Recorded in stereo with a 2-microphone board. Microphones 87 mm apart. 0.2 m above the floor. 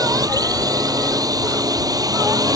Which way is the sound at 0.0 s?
45° right (ahead or behind).